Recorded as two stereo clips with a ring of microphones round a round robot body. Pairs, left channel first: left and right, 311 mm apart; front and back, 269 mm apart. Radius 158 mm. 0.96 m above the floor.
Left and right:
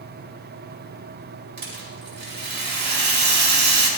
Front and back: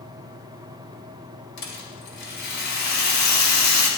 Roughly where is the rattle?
Ahead right.